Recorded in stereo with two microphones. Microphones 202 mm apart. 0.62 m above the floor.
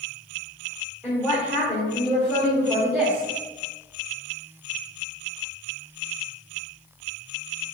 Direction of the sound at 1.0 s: Centre (ahead or behind).